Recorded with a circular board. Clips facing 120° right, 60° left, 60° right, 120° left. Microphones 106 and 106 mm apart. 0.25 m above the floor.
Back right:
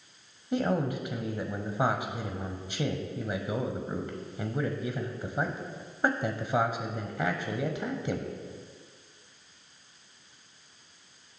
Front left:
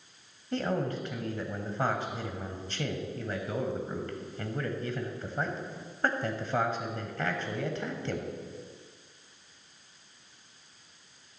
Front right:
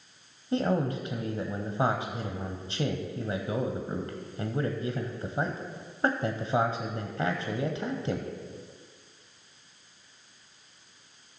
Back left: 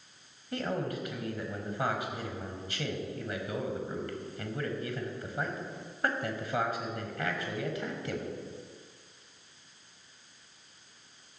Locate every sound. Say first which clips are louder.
0.5 s a man speaking: back right 2 dB, front right 6 dB; 60° right, 1.1 m